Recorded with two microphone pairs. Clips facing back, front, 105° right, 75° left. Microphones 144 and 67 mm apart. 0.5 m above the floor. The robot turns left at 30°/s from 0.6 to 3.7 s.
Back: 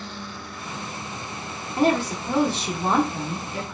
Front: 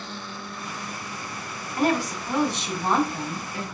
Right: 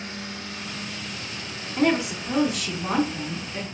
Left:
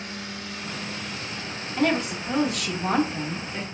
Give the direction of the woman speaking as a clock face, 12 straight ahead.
5 o'clock.